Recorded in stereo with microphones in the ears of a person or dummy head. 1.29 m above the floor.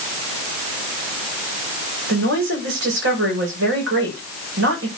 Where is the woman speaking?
60° right (ahead or behind), 6 m.